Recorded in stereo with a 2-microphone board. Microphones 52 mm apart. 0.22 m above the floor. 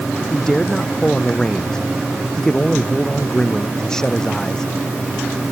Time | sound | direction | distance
0.3 | a man speaking | 10° left (ahead or behind) | ?